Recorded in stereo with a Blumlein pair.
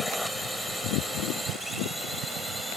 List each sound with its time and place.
0.0 s a drone: straight ahead; by 2.8 s 5° right